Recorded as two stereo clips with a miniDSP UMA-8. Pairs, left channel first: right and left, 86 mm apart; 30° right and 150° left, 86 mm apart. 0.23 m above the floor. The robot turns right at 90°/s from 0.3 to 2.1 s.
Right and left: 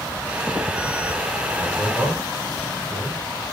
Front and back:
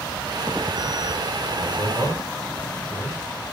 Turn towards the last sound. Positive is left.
turn(degrees=15)